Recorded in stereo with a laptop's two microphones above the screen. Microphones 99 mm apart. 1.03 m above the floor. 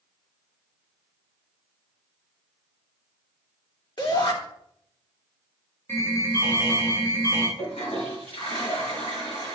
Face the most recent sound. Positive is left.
turn(degrees=80)